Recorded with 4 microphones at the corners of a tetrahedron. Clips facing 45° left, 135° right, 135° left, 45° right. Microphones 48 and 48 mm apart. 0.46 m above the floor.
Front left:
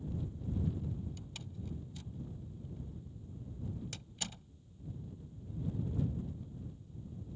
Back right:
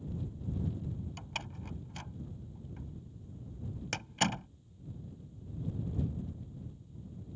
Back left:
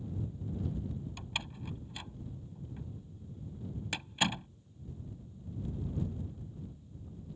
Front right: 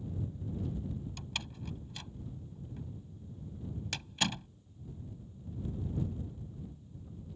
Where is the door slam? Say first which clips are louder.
Back right 6 dB, back left 1 dB; 150° right.